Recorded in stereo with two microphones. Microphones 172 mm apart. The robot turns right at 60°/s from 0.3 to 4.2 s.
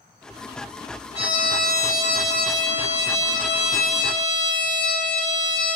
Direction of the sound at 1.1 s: 140° right.